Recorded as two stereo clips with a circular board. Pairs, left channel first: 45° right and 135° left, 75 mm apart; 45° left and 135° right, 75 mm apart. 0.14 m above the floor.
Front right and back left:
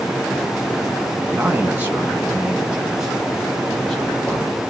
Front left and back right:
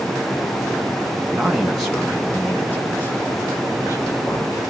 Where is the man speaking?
155° left, 1.7 m; by 4.6 s 35° left, 2.5 m.